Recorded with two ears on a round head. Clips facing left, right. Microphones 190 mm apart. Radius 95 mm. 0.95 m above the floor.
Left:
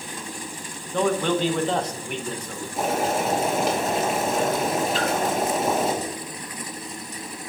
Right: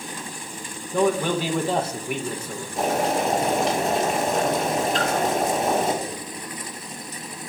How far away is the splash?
About 1.7 m.